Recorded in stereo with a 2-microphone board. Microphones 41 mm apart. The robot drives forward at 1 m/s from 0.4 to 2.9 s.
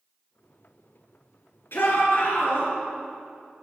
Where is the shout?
70° left (ahead or behind), 4 m; by 2.7 s 60° left (ahead or behind), 4 m.